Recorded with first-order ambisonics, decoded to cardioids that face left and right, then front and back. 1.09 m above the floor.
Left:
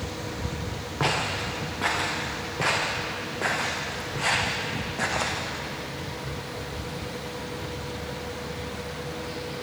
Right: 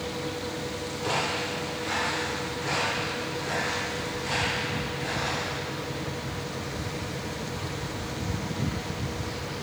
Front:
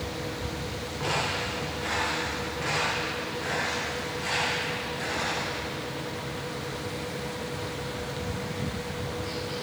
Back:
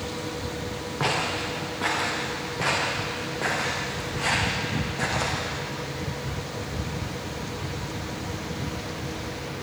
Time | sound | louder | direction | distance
1.0 | footsteps | left 2 dB, back 2 dB | 125° left | 8.5 m